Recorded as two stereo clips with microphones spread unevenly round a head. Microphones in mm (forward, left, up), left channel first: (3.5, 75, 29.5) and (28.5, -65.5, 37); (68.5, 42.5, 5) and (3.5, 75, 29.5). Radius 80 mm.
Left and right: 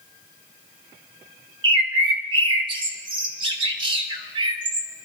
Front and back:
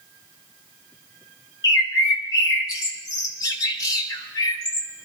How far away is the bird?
About 0.9 m.